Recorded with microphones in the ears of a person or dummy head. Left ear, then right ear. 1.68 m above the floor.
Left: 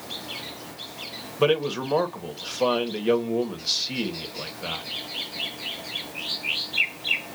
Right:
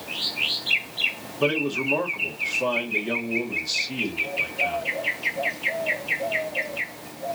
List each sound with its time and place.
1.4 s a man speaking: 60° left (ahead or behind), 1.3 m